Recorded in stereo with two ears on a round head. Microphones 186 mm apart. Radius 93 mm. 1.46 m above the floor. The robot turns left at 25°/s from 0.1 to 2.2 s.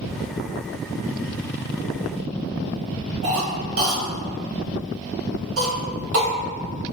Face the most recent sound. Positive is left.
turn(degrees=-70)  # may be behind; listen again after turning